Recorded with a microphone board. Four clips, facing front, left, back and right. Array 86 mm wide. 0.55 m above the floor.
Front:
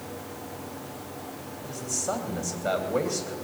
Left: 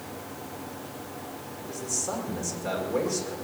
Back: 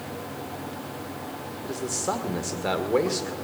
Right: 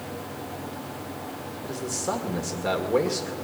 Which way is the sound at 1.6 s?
155° right.